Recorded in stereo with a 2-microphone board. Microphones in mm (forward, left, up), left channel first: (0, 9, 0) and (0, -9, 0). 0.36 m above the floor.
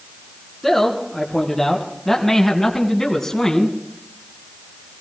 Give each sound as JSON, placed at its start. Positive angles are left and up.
{"t": 0.6, "sound": "a man speaking", "side_deg": 15, "distance_m": 4.0}